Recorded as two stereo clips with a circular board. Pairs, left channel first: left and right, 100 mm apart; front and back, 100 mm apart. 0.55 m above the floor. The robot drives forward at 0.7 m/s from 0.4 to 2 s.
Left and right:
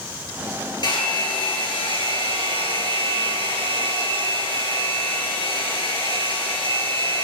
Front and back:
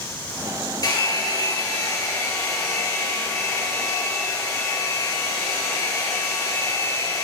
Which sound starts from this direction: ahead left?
A hair dryer, at 0.8 s.